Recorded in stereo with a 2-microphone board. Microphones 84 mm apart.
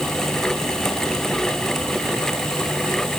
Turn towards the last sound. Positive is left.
No sound to turn to.